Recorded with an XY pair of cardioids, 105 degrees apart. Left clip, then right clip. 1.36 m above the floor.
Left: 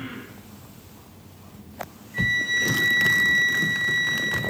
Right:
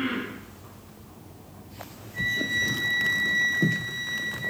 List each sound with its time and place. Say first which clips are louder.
2.1 s a flute: left 4 dB; 40° left, 0.8 m